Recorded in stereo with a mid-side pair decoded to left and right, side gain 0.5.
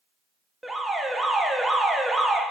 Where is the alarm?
5° right, 0.5 m.